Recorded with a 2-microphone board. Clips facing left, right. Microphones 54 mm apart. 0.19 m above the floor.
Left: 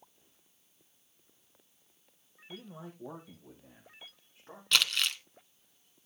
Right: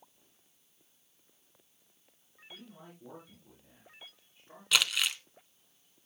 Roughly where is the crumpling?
Centre.